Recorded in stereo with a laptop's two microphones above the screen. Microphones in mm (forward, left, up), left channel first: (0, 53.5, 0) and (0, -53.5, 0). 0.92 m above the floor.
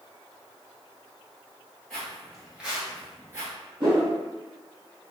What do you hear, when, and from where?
1.9 s footsteps: 5° left (ahead or behind), 1.2 m; by 3.5 s 30° right (ahead or behind), 1.0 m
3.8 s a whoosh: 45° right (ahead or behind), 1.0 m